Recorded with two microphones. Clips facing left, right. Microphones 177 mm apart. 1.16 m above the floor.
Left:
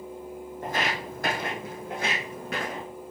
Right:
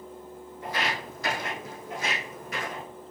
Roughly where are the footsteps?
Left.